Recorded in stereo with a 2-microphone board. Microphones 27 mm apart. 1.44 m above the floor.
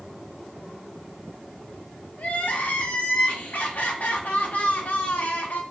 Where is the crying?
65° left (ahead or behind), 0.6 m.